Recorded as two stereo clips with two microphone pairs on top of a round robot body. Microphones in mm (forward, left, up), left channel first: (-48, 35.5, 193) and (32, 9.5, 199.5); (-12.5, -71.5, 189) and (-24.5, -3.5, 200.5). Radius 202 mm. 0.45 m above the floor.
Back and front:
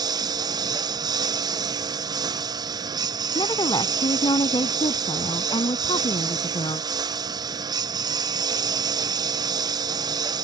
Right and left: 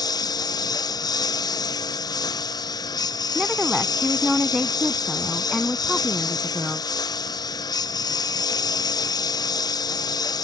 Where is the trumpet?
No trumpet in this recording.